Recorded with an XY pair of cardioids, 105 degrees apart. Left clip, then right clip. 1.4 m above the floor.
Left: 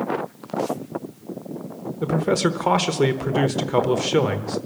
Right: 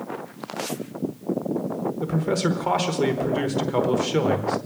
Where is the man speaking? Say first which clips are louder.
Left 6 dB; 30° left, 1.0 m.